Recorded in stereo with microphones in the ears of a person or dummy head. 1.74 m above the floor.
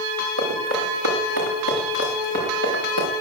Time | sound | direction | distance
0.4 | running footsteps | 70° right (ahead or behind) | 8 m